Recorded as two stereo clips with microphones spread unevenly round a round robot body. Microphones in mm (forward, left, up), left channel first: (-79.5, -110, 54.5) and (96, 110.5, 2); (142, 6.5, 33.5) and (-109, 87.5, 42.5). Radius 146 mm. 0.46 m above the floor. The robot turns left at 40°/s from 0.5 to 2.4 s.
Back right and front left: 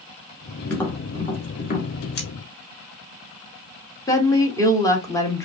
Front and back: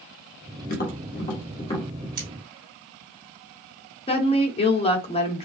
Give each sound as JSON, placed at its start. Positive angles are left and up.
{"t": 0.7, "sound": "tapping", "azimuth_deg": -30, "distance_m": 1.5}
{"t": 2.2, "sound": "cutlery clinking", "azimuth_deg": 175, "distance_m": 2.0}
{"t": 4.1, "sound": "a woman speaking", "azimuth_deg": -40, "distance_m": 1.1}